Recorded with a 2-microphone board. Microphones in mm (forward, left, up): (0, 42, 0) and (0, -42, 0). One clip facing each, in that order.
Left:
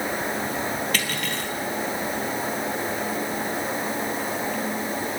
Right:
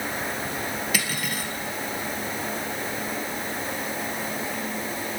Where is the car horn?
No car horn in this recording.